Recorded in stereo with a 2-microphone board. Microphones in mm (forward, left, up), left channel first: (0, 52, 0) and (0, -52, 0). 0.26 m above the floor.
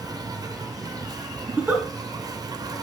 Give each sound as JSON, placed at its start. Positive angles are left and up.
{"t": 0.0, "sound": "an insect", "side_deg": -40, "distance_m": 1.4}
{"t": 1.5, "sound": "a giggle", "side_deg": -20, "distance_m": 2.5}